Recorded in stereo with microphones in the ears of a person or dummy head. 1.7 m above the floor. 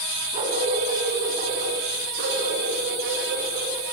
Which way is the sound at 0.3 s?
35° right (ahead or behind).